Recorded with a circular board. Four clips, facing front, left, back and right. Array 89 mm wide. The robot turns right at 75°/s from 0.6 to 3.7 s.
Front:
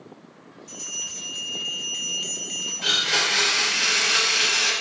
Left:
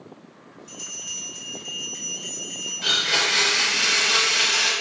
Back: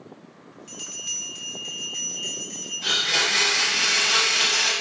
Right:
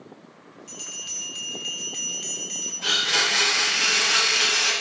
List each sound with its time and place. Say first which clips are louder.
0.7 s a bell: left 1 dB, front 1 dB; 155° right, 1.2 m; by 2.7 s 5° right, 1.2 m
2.8 s a blender: left 1 dB, even; 30° left, 1.9 m; by 4.7 s 100° left, 1.9 m